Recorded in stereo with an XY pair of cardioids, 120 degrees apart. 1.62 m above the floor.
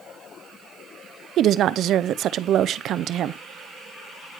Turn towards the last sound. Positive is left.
turn(degrees=-60)